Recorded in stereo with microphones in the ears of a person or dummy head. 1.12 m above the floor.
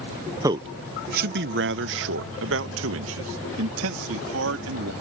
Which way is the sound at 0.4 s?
20° right (ahead or behind).